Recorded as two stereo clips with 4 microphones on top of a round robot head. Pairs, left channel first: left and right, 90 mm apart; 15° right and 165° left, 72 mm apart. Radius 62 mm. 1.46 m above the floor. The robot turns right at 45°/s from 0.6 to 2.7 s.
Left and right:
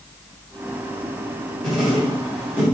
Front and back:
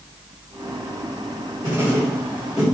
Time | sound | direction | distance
1.6 | writing | 170° left | 1.2 m